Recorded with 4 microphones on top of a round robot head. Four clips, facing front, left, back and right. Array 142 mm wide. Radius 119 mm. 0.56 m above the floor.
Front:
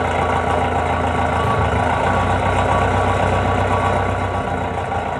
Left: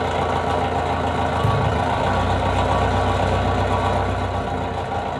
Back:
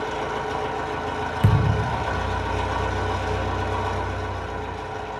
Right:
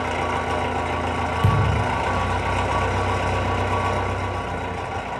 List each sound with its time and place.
0.0 s an engine running: 25° left, 1.1 m
1.4 s a thud: 165° right, 3 m